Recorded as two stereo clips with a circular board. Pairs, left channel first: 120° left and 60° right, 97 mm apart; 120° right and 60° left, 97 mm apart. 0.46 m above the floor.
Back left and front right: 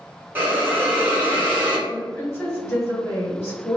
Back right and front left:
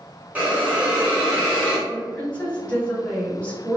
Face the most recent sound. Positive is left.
turn(degrees=170)